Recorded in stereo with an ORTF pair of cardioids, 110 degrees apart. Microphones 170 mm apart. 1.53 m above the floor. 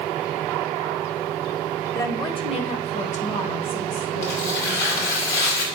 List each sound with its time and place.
1.9 s a woman speaking: 20° left, 0.9 m; by 5.2 s 65° left, 2.5 m
4.2 s tearing paper: 70° left, 2.5 m